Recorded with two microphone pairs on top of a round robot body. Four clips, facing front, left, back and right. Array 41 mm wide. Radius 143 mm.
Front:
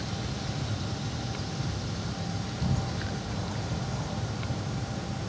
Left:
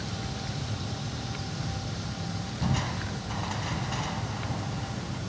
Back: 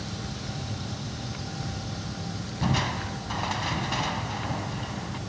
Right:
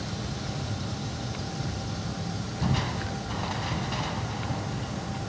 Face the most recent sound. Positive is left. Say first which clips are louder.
# right 2 dB, back 7 dB
turn(degrees=180)